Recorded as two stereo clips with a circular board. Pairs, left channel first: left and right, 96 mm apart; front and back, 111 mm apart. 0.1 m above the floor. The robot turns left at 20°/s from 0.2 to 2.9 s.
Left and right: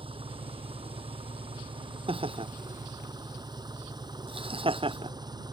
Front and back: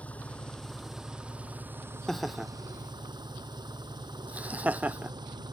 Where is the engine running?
75° right; by 5.5 s 130° right.